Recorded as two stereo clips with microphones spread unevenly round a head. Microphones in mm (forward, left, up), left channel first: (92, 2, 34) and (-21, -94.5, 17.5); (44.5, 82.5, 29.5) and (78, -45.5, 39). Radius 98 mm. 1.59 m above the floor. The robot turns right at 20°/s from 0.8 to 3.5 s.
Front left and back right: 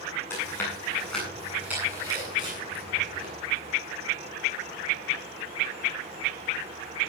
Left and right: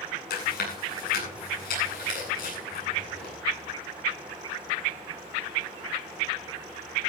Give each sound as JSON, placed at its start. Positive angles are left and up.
{"t": 0.3, "sound": "chewing", "azimuth_deg": 120, "distance_m": 9.5}